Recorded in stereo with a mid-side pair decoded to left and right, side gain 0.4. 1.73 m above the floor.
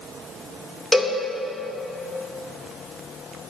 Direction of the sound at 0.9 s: 25° right.